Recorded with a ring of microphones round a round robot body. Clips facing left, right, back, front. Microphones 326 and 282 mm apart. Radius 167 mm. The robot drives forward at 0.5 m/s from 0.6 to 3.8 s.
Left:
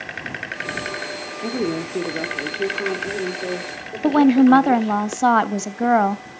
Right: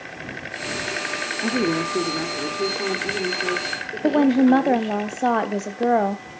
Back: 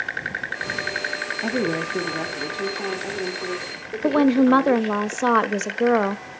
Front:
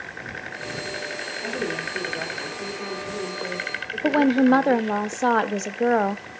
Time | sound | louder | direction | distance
1.4 | a woman speaking | right 1 dB, back 6 dB | 165° right | 1.0 m
4.0 | a woman speaking | left 3 dB, back 1 dB | 105° left | 0.6 m